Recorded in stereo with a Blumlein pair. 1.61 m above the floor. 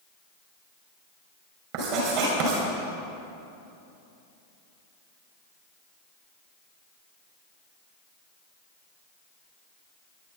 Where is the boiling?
I don't hear boiling.